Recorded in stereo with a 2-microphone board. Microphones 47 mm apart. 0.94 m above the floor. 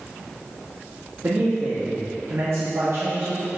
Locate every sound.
1.2 s a man speaking: 65° right (ahead or behind), 1.3 m